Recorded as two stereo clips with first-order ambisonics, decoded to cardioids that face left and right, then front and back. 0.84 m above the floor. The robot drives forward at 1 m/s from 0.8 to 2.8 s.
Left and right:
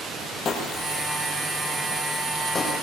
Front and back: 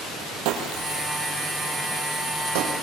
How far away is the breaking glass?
About 4 m.